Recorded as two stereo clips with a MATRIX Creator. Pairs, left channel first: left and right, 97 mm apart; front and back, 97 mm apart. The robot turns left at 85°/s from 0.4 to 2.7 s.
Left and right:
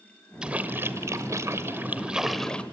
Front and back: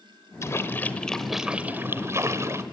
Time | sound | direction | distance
0.4 | a splash | 15° right | 1.3 m